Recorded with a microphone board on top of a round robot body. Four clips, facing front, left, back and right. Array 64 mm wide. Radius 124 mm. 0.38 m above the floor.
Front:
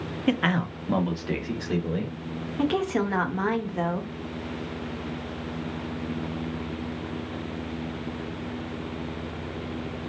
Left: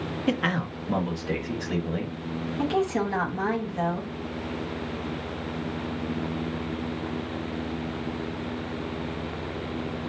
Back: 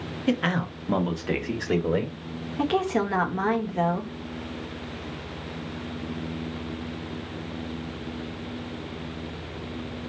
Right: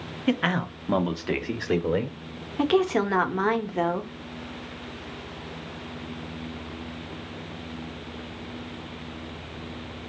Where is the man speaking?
30° right, 1.0 m; by 2.2 s 125° right, 1.5 m.